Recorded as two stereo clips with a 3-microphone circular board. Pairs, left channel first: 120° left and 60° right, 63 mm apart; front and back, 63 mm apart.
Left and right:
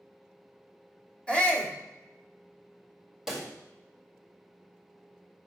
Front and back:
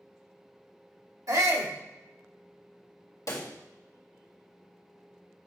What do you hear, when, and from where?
1.3 s a shout: 170° right, 1.5 m
3.3 s a pop: 20° left, 1.9 m